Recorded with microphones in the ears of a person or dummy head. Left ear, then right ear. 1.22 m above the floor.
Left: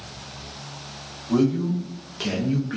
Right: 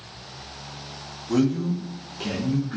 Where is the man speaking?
40° right (ahead or behind), 0.7 m; by 2.8 s 40° left (ahead or behind), 0.6 m.